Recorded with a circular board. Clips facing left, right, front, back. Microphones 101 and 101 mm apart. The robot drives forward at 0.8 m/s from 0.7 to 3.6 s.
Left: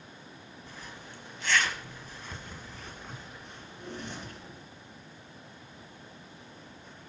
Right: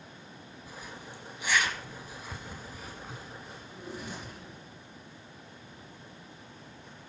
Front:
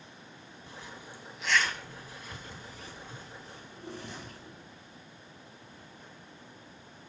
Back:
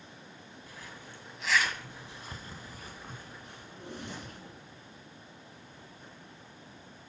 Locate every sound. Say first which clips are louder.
0.7 s a zipper: right 2 dB, front 3 dB; 20° right, 1.3 m; by 4.4 s 175° right, 2 m
3.5 s a drawer: left 1 dB, front 1 dB; 175° right, 3 m